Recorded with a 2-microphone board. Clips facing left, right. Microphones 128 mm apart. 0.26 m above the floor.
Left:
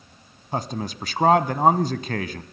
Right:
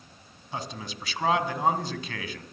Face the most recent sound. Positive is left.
turn(degrees=50)  # may be behind; listen again after turning